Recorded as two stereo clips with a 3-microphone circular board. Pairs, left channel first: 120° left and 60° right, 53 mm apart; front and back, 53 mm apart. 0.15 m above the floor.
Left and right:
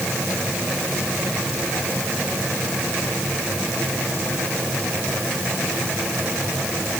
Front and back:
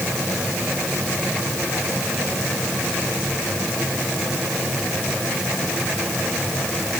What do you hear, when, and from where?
Only background noise.